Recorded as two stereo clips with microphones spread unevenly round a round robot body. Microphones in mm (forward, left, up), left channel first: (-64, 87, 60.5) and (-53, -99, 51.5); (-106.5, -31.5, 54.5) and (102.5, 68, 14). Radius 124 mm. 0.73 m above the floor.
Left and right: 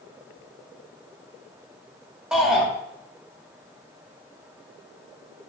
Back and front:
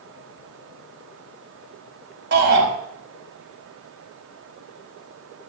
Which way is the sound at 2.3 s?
Straight ahead.